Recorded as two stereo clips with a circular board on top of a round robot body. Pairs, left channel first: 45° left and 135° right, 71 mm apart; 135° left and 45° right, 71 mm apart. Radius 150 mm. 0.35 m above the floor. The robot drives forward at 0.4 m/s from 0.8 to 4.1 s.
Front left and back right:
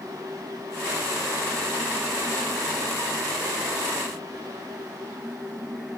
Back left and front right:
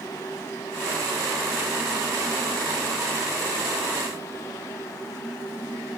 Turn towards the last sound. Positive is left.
No sound to turn to.